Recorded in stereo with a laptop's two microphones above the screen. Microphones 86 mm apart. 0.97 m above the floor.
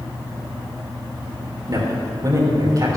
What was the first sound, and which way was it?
A man speaking, 45° right (ahead or behind).